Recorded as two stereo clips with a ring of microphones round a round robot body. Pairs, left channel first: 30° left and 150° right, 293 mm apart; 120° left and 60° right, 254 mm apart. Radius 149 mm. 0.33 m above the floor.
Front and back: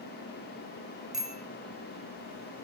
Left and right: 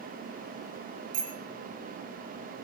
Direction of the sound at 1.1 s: 60° right.